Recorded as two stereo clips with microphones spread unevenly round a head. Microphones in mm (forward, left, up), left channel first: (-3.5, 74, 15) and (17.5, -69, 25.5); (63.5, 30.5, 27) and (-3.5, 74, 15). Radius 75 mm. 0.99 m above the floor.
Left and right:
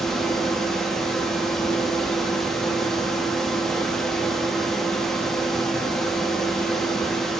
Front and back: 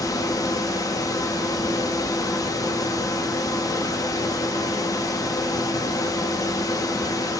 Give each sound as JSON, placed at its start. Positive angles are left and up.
{"t": 0.0, "sound": "a fan", "azimuth_deg": 10, "distance_m": 0.9}